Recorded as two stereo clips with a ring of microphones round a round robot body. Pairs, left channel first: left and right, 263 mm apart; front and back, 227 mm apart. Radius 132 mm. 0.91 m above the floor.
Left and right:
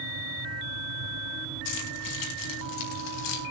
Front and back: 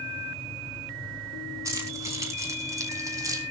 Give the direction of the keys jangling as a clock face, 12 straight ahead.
9 o'clock.